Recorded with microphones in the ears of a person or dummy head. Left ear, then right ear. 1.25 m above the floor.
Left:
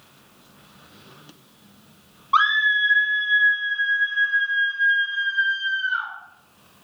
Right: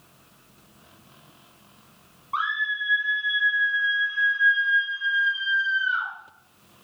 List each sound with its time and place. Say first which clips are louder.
2.3 s a scream: left 8 dB; 45° left (ahead or behind), 0.9 m; by 6.1 s 50° right (ahead or behind), 3 m